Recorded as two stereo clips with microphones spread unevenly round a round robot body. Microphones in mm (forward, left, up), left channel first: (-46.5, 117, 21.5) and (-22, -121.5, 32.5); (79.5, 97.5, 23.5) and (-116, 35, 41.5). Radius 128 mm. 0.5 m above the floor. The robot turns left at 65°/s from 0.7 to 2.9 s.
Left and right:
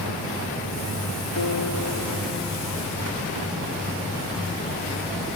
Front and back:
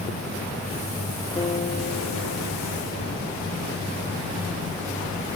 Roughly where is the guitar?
Left.